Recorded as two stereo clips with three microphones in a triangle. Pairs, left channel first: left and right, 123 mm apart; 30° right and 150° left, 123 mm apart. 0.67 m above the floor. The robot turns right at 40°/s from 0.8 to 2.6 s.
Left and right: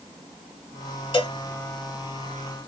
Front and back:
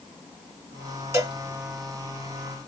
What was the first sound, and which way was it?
A cowbell, 90° left.